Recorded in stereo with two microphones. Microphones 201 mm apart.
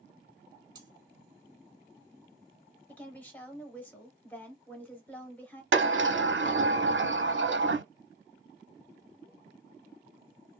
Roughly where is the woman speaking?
Centre.